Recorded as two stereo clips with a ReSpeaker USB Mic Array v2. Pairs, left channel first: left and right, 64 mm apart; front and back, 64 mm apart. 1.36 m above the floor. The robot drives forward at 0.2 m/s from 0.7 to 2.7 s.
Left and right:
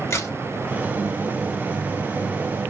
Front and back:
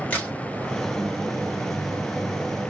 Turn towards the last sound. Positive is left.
turn(degrees=80)